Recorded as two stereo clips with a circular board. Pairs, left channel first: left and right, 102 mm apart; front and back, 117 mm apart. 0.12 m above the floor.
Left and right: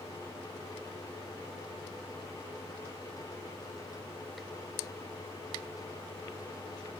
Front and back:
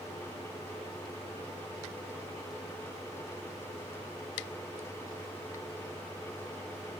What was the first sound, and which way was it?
Only background noise.